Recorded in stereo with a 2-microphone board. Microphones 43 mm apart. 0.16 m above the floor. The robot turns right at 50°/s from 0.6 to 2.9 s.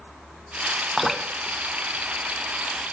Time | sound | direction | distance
1.0 | dripping | centre (ahead or behind) | 0.7 m